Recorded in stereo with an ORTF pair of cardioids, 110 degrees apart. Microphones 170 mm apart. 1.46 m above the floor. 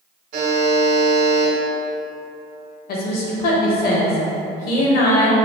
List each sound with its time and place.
0.3 s a buzzer: 60° right, 1.2 m
2.9 s a woman speaking: 65° left, 1.0 m